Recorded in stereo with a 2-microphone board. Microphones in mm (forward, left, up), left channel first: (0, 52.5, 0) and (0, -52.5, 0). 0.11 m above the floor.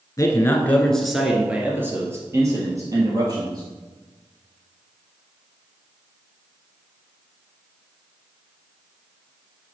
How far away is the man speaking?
About 1.2 m.